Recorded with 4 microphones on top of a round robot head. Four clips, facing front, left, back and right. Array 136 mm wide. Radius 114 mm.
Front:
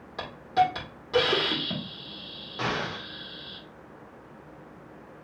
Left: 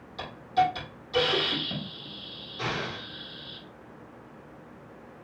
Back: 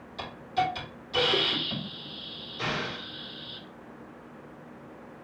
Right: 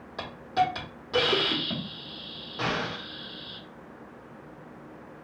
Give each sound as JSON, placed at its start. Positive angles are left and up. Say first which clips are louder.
{"t": 0.2, "sound": "a hiss", "louder": "left 1 dB, front 5 dB", "azimuth_deg": -45, "distance_m": 2.5}
{"t": 2.6, "sound": "an explosion", "louder": "right 2 dB, front 3 dB", "azimuth_deg": -40, "distance_m": 1.3}